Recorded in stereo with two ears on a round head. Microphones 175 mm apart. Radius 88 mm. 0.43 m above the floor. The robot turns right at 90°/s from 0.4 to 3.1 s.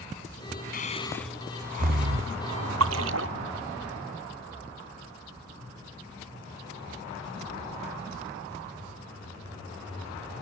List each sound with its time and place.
0.7 s breathing: 50° left (ahead or behind); by 2.4 s 75° right (ahead or behind)
2.8 s a splash: 85° right; by 3.3 s 70° right (ahead or behind)